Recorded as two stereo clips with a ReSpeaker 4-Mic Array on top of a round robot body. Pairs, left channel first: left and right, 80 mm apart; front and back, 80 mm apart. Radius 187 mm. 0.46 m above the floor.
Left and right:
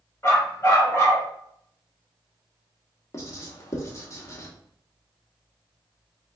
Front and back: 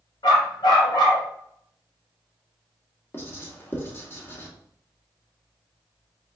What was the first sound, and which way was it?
A dog barking, 30° left.